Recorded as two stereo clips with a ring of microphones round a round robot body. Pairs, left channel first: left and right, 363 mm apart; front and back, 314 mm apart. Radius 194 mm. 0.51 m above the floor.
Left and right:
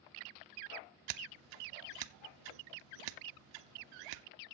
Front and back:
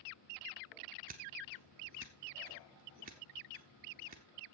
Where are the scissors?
110° right, 0.7 m.